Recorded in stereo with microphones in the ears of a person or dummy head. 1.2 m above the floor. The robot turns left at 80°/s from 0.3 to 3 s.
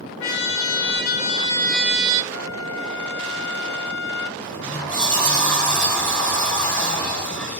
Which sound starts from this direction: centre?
A sliding door, at 4.4 s.